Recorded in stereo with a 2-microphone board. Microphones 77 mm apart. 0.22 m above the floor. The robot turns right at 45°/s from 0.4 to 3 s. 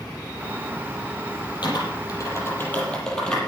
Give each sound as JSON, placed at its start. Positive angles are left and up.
{"t": 1.6, "sound": "typing on a keyboard", "side_deg": 70, "distance_m": 6.5}